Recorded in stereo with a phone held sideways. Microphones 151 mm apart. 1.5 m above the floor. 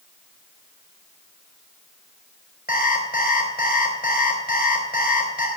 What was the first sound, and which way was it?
An alarm clock, 75° left (ahead or behind).